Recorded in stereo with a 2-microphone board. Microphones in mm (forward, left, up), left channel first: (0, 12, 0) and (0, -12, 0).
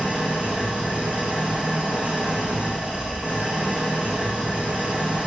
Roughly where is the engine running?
Right.